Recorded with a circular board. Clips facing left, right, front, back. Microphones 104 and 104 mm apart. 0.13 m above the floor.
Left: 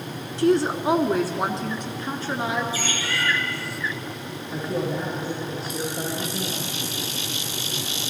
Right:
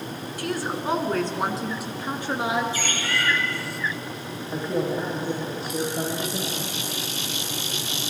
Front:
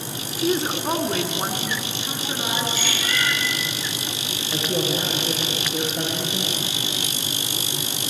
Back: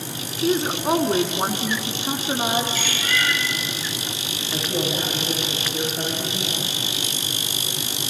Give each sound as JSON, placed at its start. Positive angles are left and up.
{"t": 0.4, "sound": "a woman speaking", "azimuth_deg": 75, "distance_m": 1.1}
{"t": 2.7, "sound": "a bird", "azimuth_deg": -65, "distance_m": 7.0}
{"t": 4.5, "sound": "a man speaking", "azimuth_deg": -45, "distance_m": 3.5}